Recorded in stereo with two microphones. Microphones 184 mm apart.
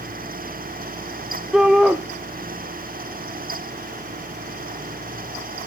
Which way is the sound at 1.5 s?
5° right (ahead or behind).